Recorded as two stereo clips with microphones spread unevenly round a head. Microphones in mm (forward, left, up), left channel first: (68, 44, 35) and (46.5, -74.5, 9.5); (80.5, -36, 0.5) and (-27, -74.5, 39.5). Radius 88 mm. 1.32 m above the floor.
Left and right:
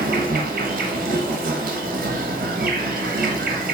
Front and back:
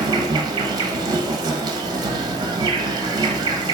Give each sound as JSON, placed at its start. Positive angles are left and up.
{"t": 0.0, "sound": "an insect", "azimuth_deg": -130, "distance_m": 0.7}